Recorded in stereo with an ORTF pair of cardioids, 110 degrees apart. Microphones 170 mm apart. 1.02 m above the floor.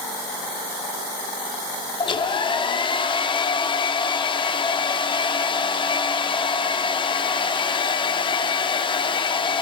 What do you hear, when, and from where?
2.0 s a hair dryer: 30° left, 1.0 m